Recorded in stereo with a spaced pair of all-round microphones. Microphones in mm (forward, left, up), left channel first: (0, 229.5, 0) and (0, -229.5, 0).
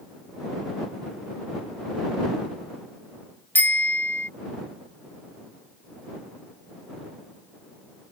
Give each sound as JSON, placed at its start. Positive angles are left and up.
{"t": 3.5, "sound": "a bicycle bell", "side_deg": 5}